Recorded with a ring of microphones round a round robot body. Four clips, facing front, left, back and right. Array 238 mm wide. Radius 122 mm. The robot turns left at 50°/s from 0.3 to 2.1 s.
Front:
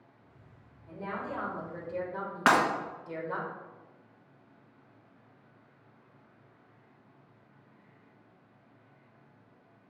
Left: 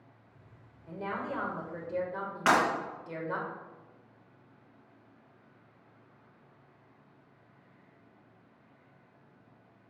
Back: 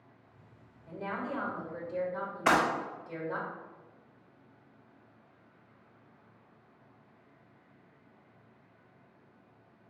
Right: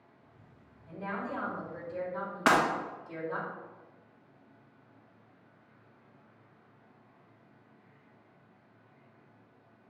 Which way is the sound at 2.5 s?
10° right.